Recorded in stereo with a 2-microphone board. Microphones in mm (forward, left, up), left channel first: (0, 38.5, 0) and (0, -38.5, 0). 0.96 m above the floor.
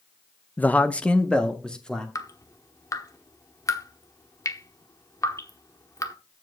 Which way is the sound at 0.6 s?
20° left (ahead or behind).